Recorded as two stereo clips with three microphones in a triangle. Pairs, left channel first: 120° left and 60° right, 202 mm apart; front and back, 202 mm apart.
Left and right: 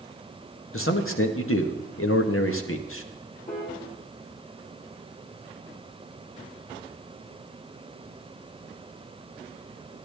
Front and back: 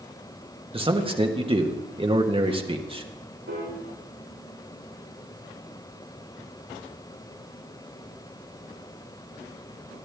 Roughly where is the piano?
Behind.